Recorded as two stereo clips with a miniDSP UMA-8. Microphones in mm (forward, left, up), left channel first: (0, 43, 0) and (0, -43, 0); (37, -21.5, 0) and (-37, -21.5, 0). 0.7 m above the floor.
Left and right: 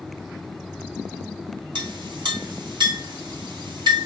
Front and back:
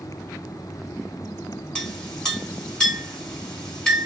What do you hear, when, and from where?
1.8 s a clink: 75° right, 2 m